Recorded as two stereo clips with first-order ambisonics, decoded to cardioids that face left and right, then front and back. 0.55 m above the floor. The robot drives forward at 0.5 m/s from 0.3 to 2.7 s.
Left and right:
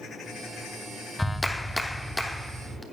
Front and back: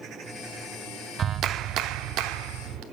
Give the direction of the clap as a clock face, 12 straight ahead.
6 o'clock.